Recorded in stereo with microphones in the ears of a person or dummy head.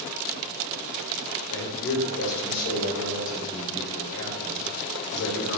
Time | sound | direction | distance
1.5 | a man speaking | 65° left (ahead or behind) | 1.1 m